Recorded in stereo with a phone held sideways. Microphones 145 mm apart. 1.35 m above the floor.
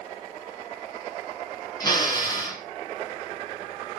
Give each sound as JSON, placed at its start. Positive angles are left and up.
{"t": 1.8, "sound": "a drill", "side_deg": 30, "distance_m": 6.0}